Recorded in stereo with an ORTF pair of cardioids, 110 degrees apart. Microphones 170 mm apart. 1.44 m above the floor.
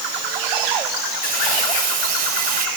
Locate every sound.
1.2 s crumpling: 60° right, 3.5 m